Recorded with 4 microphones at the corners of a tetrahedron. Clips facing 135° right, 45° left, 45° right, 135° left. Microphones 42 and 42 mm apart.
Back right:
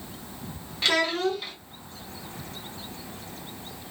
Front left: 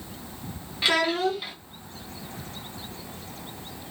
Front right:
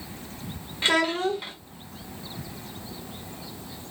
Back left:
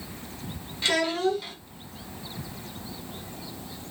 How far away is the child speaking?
About 0.7 m.